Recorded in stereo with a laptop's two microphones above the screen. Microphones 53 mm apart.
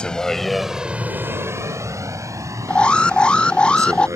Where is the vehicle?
20° left (ahead or behind); by 4.2 s 70° right (ahead or behind).